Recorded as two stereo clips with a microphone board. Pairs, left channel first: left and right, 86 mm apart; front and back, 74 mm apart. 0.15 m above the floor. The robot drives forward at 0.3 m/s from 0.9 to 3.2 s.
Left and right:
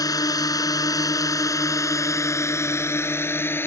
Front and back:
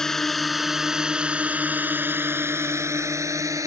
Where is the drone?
80° left; by 3.7 s 150° left.